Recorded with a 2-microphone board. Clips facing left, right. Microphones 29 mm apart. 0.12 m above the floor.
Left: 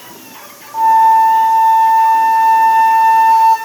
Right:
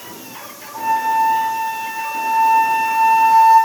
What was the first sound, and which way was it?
A flute, 55° left (ahead or behind).